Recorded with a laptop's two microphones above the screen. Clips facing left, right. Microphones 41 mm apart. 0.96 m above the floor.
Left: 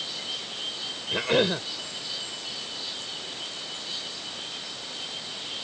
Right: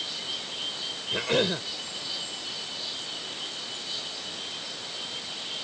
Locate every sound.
1.1 s a cough: 10° left (ahead or behind)